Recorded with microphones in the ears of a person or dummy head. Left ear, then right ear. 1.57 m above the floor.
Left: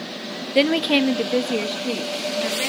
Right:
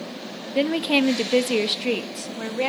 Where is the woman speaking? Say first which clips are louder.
Left 3 dB; 25° left (ahead or behind), 0.6 m; by 2.7 s 55° right (ahead or behind), 1.6 m.